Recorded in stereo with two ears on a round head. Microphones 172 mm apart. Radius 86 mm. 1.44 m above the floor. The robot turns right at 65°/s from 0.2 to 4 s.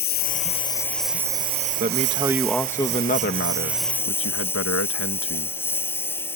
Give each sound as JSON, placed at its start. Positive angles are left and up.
{"t": 0.0, "sound": "a lawn mower", "azimuth_deg": 125}
{"t": 1.8, "sound": "a man speaking", "azimuth_deg": -45}